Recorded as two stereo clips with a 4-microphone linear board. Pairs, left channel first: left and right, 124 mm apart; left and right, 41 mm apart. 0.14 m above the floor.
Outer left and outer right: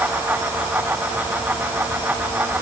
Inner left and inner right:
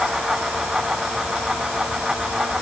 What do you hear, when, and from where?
Only background noise.